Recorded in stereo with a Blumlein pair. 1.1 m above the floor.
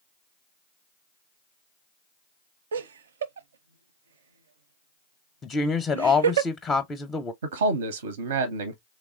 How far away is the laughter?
About 0.5 m.